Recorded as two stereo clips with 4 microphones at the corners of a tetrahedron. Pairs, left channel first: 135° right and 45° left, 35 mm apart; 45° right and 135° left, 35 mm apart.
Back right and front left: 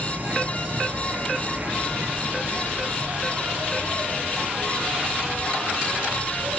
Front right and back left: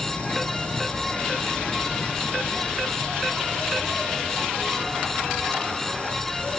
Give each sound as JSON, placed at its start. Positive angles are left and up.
{"t": 0.0, "sound": "an insect", "azimuth_deg": 10, "distance_m": 0.7}